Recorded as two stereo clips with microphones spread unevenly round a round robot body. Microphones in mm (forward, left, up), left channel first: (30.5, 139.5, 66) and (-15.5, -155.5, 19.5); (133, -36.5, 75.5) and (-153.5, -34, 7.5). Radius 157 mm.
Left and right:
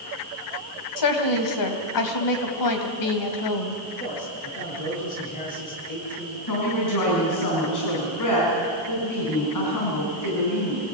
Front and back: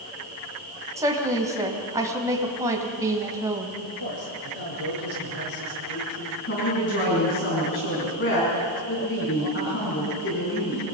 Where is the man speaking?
15° left, 7.5 m.